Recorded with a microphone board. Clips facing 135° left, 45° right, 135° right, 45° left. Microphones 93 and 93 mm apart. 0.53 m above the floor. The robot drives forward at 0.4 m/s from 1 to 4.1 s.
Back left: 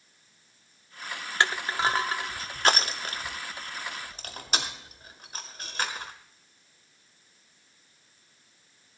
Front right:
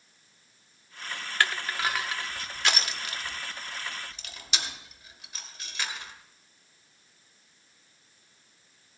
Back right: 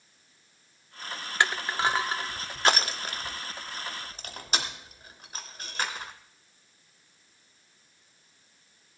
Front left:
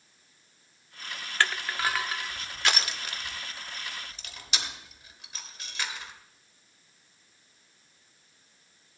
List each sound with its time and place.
1.4 s crushing: 175° left, 0.6 m; by 6.1 s straight behind, 1.4 m